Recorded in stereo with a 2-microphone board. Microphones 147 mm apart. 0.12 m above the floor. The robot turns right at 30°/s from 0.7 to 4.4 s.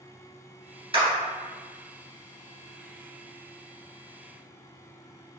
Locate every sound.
0.9 s a clap: 35° right (ahead or behind), 1.7 m; by 1.1 s 40° right (ahead or behind), 1.7 m